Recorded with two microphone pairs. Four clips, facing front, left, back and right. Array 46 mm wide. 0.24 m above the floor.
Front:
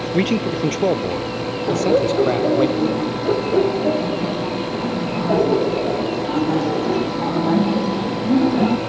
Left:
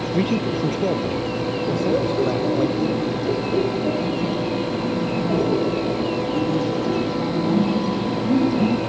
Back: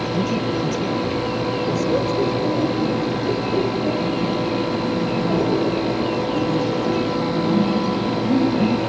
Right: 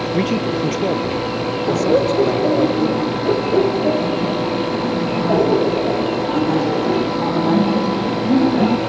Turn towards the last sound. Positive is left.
turn(degrees=-60)